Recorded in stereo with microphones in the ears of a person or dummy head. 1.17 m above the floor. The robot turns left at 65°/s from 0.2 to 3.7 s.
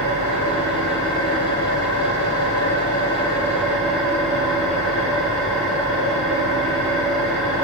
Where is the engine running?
140° right, 1.9 m; by 7.7 s 5° right, 1.9 m.